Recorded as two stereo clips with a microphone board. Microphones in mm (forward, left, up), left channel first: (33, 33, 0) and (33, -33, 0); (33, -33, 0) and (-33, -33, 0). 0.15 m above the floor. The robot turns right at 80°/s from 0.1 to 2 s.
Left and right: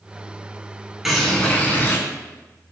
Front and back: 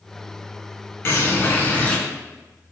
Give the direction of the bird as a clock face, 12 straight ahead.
12 o'clock.